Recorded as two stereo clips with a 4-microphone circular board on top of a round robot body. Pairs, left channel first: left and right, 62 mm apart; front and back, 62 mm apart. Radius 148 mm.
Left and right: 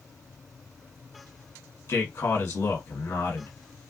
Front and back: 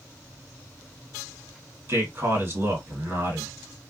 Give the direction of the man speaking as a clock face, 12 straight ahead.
8 o'clock.